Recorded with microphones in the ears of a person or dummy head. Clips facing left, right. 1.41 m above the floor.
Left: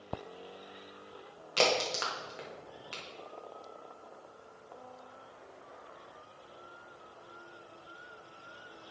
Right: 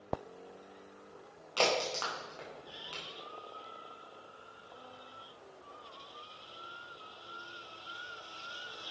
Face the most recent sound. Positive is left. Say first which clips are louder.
# left 2 dB
turn(degrees=25)  # may be behind; listen again after turning